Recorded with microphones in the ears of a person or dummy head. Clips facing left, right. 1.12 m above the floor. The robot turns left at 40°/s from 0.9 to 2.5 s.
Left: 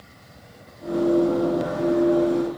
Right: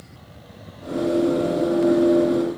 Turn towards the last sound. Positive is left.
No sound to turn to.